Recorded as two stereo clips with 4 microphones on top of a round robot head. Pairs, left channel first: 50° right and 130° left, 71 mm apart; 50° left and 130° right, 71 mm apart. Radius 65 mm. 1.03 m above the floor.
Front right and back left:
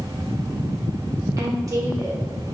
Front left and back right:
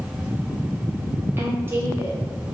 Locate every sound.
1.4 s a woman speaking: 170° left, 1.7 m